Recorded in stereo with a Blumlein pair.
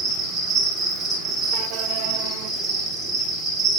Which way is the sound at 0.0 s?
30° right.